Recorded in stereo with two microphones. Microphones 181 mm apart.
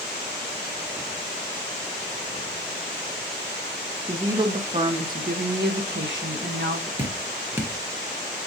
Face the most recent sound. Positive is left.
turn(degrees=-15)  # may be behind; listen again after turning